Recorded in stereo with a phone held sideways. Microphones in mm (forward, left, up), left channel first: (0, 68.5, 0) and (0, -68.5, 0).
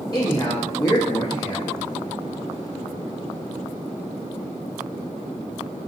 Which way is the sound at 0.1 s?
30° left (ahead or behind).